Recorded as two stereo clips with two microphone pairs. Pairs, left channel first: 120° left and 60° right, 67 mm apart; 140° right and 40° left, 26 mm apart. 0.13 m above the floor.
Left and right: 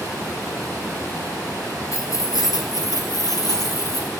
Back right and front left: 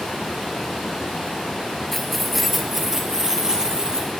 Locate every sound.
1.9 s keys jangling: 140° left, 1.5 m; by 4.1 s 95° left, 2.5 m